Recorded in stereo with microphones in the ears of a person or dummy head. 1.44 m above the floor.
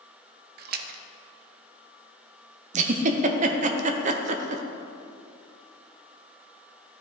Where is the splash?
60° right (ahead or behind), 0.6 m.